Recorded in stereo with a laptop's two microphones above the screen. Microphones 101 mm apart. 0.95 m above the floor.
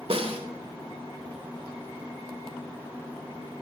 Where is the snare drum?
70° right (ahead or behind), 2 m.